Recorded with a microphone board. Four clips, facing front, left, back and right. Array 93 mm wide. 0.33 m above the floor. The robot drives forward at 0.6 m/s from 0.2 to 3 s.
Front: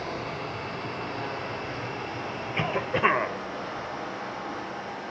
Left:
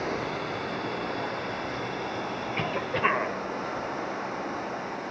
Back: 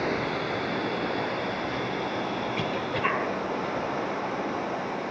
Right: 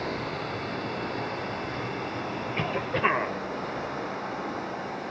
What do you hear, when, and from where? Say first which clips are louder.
0.0 s running water: left 1 dB, back 5 dB; 170° left, 3.5 m
2.5 s a cough: right 1 dB, front 1 dB; straight ahead, 1.4 m